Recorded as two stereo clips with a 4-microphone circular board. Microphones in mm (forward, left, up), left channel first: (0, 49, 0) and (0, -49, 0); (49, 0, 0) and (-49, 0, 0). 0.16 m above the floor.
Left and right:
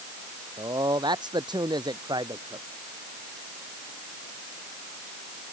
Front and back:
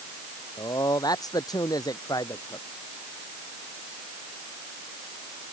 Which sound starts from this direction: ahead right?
A man speaking, at 0.6 s.